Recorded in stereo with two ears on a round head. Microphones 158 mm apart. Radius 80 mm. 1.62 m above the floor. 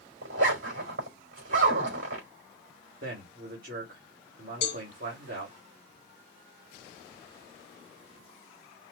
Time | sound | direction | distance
0.2 | a zipper | 50° right (ahead or behind) | 4.5 m
3.0 | a man speaking | 55° right (ahead or behind) | 3 m
4.6 | a cowbell | 50° left (ahead or behind) | 1.4 m